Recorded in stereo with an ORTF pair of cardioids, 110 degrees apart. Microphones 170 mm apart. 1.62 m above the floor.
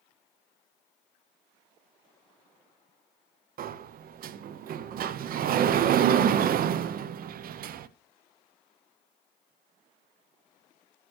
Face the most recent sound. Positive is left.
turn(degrees=-55)